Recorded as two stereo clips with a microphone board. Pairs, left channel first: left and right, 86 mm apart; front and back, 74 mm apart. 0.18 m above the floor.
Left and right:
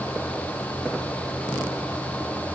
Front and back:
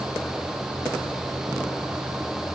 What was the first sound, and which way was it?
Only background noise.